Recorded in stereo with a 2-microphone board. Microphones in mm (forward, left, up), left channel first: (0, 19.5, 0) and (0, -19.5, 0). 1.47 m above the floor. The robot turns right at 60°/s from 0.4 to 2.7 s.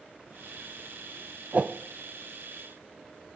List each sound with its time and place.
1.5 s a whoosh: 35° right (ahead or behind), 0.5 m; by 1.7 s 30° right (ahead or behind), 0.5 m